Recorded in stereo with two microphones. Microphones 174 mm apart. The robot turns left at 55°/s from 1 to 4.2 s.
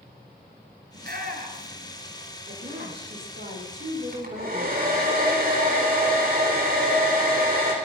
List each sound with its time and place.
0.9 s a shout: 60° right (ahead or behind), 2.5 m; by 1.9 s 25° right (ahead or behind), 2.5 m
2.5 s a woman speaking: 45° right, 5.5 m; by 5.1 s 140° right, 5.5 m
4.1 s a hair dryer: 55° right (ahead or behind), 4.5 m; by 7.7 s 60° right (ahead or behind), 4.5 m